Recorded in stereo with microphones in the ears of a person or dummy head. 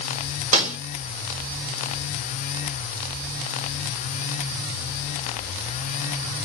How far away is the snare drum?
About 2.5 m.